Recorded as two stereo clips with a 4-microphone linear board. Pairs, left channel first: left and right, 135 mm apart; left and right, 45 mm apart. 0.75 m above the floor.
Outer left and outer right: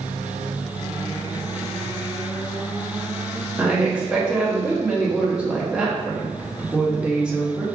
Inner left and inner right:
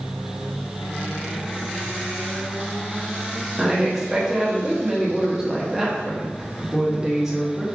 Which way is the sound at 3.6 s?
10° right (ahead or behind).